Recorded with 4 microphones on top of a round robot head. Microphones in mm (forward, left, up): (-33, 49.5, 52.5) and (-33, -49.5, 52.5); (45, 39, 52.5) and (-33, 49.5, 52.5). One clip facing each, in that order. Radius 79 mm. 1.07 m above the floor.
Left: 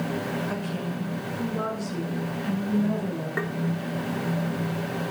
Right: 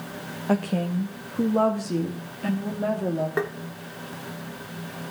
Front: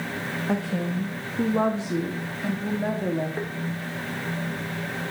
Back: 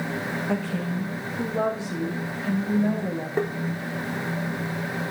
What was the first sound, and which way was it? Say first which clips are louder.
A woman speaking: right 6 dB, front 3 dB; 85° right.